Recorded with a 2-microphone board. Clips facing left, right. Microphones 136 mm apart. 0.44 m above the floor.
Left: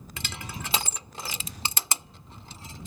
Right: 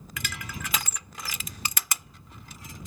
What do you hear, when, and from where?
0.2 s crushing: 30° left (ahead or behind)